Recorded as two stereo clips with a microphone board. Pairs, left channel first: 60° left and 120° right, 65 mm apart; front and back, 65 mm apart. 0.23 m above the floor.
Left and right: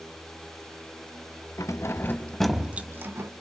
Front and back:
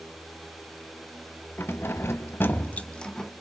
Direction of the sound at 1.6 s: 50° left.